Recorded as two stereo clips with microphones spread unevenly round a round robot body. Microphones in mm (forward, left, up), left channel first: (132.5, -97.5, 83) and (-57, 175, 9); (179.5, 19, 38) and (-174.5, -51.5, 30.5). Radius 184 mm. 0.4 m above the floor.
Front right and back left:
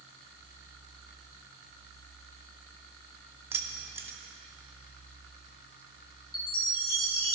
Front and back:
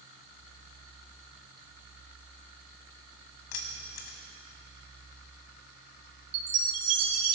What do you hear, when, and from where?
3.5 s keys jangling: 45° left, 1.8 m
6.3 s a chime: 125° right, 2 m